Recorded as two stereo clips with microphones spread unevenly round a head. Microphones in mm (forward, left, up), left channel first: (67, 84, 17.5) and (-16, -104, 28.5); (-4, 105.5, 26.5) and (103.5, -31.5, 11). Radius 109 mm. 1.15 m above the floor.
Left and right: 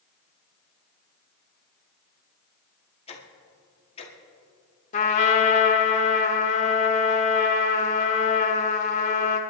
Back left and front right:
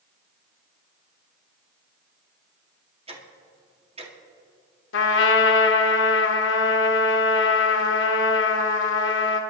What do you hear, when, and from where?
3.1 s ticking: 5° left, 2 m
4.9 s a trumpet: 125° left, 1.5 m